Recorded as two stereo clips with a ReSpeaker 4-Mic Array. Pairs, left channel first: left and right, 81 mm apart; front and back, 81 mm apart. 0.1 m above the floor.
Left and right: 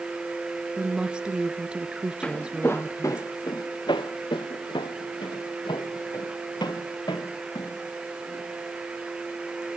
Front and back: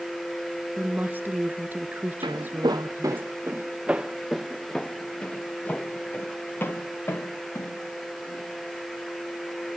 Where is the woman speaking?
150° right, 1.3 m.